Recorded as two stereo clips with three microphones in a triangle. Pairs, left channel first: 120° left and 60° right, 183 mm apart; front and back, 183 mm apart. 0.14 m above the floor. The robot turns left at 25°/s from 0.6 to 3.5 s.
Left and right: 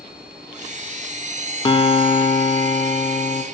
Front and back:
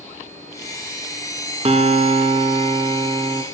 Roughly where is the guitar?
Behind.